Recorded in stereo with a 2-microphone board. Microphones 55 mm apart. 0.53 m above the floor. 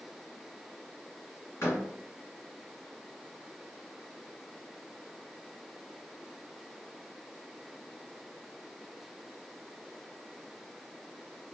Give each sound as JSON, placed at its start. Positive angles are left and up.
{"t": 1.6, "sound": "a door slam", "side_deg": 55, "distance_m": 1.8}